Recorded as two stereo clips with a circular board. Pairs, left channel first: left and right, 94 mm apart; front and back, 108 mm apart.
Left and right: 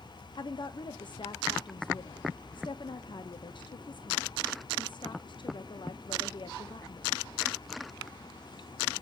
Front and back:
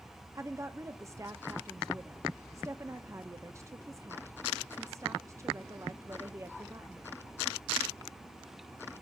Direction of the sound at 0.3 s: 120° left.